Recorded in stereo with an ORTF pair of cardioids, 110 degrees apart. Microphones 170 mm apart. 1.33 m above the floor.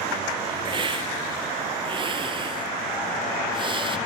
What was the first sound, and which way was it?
A hiss, 30° right.